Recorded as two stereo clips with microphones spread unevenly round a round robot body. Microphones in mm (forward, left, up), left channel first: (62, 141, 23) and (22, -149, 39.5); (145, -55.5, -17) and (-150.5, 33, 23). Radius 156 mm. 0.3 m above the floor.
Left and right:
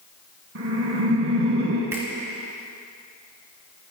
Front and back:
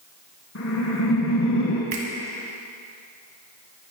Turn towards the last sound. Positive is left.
turn(degrees=180)